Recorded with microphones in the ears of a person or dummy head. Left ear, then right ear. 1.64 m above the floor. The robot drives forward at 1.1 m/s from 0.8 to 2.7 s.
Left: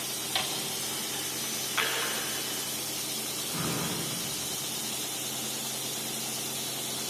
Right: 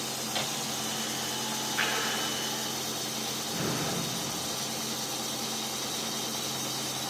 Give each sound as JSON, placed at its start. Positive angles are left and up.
{"t": 0.3, "sound": "a microwave", "side_deg": 25, "distance_m": 3.0}
{"t": 1.8, "sound": "a drawer", "side_deg": 45, "distance_m": 7.0}